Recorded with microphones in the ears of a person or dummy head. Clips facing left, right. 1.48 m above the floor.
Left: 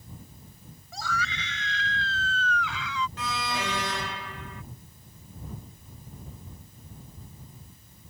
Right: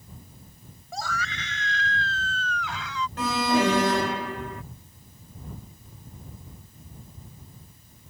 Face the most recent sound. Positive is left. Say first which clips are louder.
# right 10 dB
turn(degrees=-45)  # may be behind; listen again after turning